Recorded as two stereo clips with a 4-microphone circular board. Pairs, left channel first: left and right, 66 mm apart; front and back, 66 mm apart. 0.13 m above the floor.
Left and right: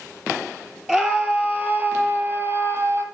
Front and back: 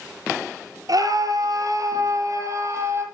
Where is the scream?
170° right, 3.5 m; by 3.0 s 135° right, 4 m.